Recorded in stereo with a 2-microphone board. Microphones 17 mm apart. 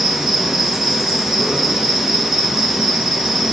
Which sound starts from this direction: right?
An insect, at 0.0 s.